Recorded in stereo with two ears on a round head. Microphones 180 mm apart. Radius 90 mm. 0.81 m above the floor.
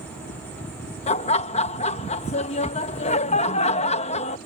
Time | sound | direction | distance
1.1 | laughter | 35° left (ahead or behind) | ?